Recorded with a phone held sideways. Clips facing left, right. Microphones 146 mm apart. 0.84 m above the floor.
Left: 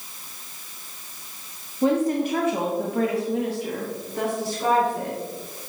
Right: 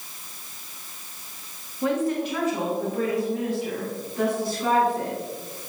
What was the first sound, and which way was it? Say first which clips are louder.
A woman speaking: left 3 dB; 25° left (ahead or behind).